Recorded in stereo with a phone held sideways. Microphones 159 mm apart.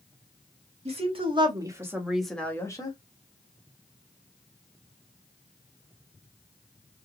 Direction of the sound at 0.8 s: 40° right (ahead or behind).